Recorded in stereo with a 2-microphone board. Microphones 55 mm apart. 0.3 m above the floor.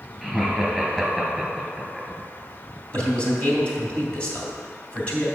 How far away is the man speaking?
About 2.5 m.